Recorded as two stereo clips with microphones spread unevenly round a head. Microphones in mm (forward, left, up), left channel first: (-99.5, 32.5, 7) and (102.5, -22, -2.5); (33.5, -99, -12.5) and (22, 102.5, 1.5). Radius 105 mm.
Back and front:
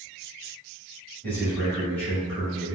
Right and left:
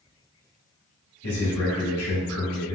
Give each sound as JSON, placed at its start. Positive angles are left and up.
{"t": 1.2, "sound": "a man speaking", "azimuth_deg": -110, "distance_m": 1.9}